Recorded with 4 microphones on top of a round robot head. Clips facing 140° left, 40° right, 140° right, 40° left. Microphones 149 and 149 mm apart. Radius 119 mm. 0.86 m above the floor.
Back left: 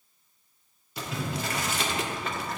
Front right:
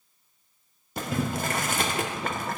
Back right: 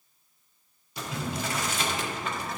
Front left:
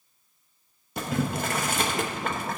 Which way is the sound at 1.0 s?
Straight ahead.